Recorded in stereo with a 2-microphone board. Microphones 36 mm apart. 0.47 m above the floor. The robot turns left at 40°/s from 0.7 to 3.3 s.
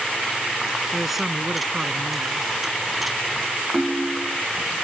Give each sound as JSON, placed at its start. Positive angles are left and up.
{"t": 0.9, "sound": "a man speaking", "azimuth_deg": 5}
{"t": 3.7, "sound": "a ringtone", "side_deg": 5}